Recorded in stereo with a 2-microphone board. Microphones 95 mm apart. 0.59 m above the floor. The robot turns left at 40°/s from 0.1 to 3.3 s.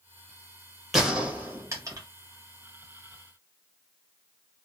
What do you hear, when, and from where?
0.9 s a gunshot: centre (ahead or behind), 1.7 m; by 2.1 s 45° right (ahead or behind), 1.7 m